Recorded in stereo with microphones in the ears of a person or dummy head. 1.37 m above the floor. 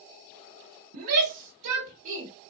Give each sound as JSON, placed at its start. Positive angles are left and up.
{"t": 0.9, "sound": "a shout", "side_deg": -75, "distance_m": 1.5}